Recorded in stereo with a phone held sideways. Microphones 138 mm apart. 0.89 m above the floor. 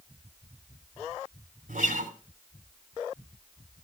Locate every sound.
1.7 s a guitar: 75° right (ahead or behind), 3 m